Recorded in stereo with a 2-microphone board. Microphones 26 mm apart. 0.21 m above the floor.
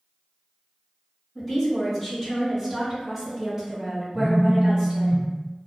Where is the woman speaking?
15° left (ahead or behind), 1.7 m; by 5.1 s 20° right (ahead or behind), 1.6 m.